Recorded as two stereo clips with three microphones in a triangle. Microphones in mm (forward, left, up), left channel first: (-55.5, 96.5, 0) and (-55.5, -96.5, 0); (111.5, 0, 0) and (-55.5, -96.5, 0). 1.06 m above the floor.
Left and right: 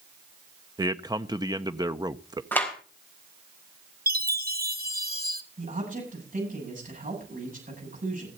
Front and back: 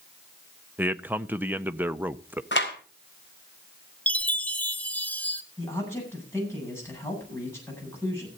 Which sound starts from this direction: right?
A man speaking, at 0.8 s.